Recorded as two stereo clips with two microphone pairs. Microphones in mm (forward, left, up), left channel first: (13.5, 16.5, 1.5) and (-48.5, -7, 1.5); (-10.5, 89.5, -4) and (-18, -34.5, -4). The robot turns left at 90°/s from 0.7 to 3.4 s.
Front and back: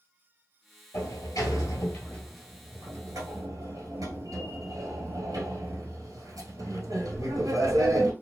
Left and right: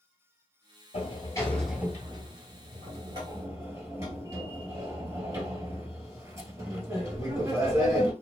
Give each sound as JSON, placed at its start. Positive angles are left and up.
{"t": 0.9, "sound": "a sliding door", "azimuth_deg": 65, "distance_m": 1.1}